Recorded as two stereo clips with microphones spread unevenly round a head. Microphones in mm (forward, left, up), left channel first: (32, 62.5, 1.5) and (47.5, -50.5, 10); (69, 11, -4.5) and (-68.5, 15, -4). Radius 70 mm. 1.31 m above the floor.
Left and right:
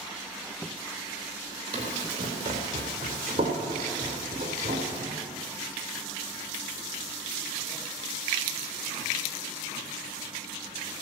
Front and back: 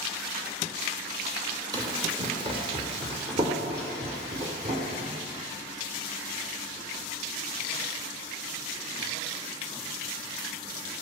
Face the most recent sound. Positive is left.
turn(degrees=-140)